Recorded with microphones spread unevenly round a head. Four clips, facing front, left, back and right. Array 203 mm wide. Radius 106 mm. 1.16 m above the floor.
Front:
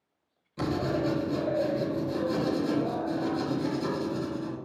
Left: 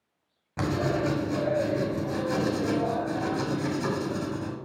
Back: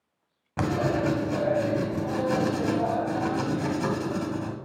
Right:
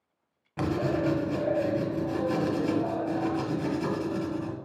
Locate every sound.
0.6 s writing: 165° left, 1.7 m